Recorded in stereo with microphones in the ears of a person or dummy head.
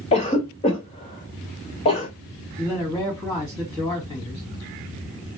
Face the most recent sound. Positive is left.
turn(degrees=15)  # may be behind; listen again after turning